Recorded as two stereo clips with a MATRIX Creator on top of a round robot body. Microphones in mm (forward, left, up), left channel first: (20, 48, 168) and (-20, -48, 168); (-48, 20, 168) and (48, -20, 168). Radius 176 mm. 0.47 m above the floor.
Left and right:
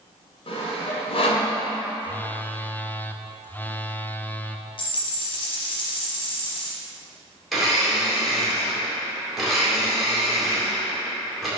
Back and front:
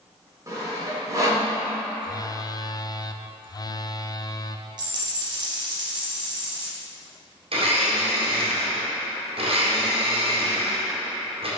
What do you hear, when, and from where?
0.5 s sawing: 35° left, 1.6 m
2.0 s a phone buzzing: 130° left, 0.6 m
4.8 s a dropped coin: 25° left, 0.8 m
7.5 s a blender: 25° right, 2 m